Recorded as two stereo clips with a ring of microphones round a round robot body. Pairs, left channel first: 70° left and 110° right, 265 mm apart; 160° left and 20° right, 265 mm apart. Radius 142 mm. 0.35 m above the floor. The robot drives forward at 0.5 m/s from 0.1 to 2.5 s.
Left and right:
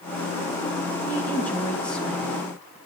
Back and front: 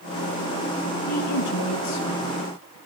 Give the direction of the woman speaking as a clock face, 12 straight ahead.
7 o'clock.